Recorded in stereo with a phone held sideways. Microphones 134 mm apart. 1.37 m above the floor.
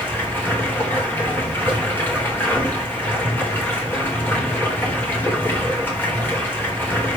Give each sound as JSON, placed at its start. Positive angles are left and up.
{"t": 0.0, "sound": "running water", "side_deg": 15, "distance_m": 3.5}